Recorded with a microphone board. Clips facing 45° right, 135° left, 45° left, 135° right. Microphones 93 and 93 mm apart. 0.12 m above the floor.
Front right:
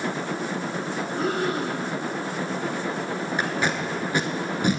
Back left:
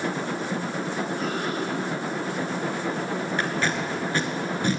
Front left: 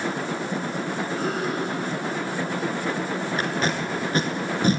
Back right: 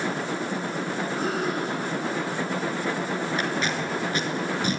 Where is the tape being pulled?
25° left, 0.6 m.